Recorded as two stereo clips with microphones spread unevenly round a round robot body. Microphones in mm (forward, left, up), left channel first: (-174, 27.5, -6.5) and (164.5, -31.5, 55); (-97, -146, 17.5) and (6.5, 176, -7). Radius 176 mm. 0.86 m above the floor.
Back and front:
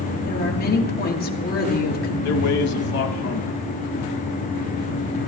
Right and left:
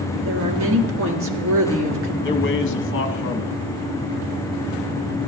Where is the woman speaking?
115° left, 1.6 m.